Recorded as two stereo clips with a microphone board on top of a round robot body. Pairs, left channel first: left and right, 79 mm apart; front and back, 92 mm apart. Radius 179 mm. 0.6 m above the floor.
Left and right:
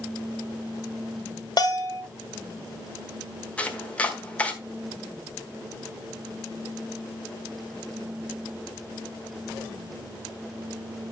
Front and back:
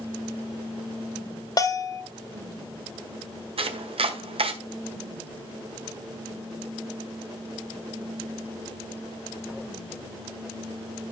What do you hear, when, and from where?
1.6 s a bell: 50° left, 1.4 m
3.6 s chopping: 165° left, 1.4 m